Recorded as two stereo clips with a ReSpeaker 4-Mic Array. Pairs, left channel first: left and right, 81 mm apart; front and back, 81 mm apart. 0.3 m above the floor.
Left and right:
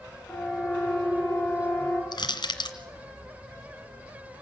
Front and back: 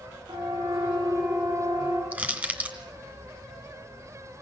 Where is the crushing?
110° left, 2 m.